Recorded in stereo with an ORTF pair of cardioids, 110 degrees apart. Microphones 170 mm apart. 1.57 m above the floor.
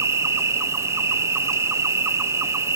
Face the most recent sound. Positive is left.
turn(degrees=-15)